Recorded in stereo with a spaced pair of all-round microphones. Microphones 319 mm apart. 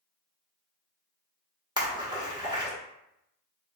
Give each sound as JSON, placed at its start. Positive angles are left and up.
{"t": 1.8, "sound": "a splash", "side_deg": -15, "distance_m": 1.2}